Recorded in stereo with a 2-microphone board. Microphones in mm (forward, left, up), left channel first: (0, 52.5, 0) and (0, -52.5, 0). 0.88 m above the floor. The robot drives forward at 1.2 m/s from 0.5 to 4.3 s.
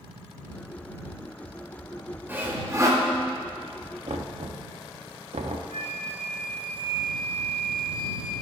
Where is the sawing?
20° right (ahead or behind), 1.9 m; by 3.0 s 35° right (ahead or behind), 1.0 m.